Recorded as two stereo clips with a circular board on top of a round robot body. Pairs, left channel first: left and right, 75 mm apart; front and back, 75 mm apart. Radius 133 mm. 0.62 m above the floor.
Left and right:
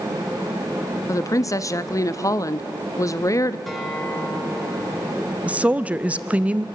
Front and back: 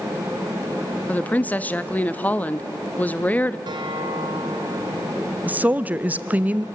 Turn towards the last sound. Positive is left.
turn(degrees=-140)